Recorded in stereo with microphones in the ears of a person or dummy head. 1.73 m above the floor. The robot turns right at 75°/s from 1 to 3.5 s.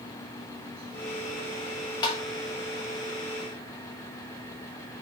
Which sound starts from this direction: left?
Tapping, at 2.0 s.